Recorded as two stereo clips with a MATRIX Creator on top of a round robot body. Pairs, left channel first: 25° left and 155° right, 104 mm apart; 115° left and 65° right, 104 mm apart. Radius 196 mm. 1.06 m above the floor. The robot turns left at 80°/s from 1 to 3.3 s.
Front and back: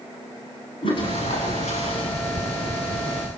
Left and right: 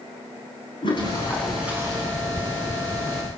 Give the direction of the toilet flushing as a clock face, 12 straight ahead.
10 o'clock.